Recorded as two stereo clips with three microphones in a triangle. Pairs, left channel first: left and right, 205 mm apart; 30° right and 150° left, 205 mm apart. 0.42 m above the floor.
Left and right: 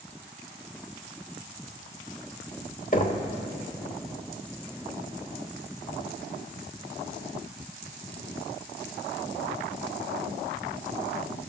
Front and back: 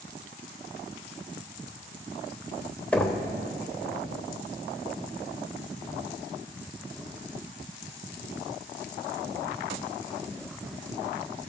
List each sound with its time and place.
2.9 s knocking: 50° left, 1.1 m